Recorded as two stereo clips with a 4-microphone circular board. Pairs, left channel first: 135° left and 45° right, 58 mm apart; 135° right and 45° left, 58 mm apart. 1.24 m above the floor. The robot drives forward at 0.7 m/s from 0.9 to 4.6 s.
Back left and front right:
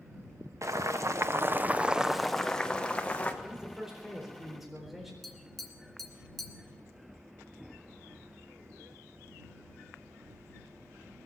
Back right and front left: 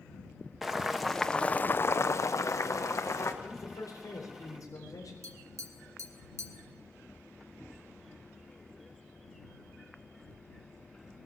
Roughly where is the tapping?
Ahead left.